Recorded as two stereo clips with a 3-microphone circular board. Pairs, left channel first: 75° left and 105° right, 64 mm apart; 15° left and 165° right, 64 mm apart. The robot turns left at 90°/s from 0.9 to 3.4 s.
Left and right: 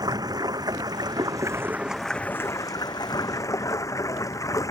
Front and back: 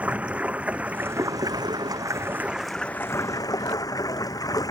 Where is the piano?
No piano in this recording.